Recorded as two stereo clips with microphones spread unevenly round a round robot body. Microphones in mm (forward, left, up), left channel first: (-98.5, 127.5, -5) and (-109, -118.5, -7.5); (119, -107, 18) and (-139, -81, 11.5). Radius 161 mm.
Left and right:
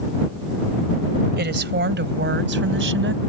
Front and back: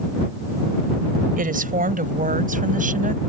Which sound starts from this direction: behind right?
A woman speaking, at 1.4 s.